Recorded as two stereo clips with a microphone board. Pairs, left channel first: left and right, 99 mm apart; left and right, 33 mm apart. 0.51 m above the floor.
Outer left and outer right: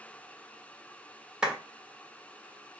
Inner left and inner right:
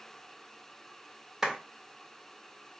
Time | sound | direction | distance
1.4 | a clap | 10° right (ahead or behind) | 1.3 m